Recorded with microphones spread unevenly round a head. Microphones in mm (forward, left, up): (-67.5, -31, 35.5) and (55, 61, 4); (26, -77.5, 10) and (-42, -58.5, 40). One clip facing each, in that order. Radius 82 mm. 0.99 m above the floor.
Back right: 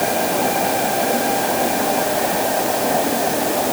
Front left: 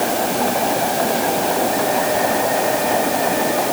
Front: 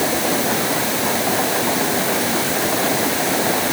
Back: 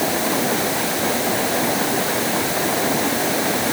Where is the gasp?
I don't hear a gasp.